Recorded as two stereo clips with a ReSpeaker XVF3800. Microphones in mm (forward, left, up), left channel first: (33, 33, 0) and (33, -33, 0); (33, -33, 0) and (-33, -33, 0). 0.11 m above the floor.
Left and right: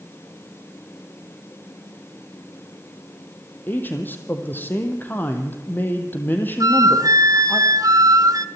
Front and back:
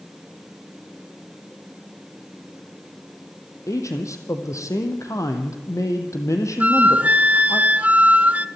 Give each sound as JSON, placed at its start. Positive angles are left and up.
{"t": 3.7, "sound": "a man speaking", "azimuth_deg": 30, "distance_m": 4.0}
{"t": 6.6, "sound": "a flute", "azimuth_deg": -115, "distance_m": 0.7}